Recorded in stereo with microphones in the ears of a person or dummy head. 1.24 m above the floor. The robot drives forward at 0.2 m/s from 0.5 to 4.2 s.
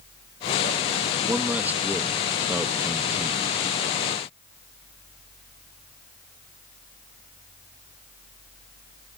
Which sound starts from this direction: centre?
A man speaking, at 1.3 s.